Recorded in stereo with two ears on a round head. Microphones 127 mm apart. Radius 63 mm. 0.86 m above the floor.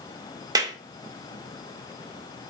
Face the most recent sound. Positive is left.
turn(degrees=-25)  # may be behind; listen again after turning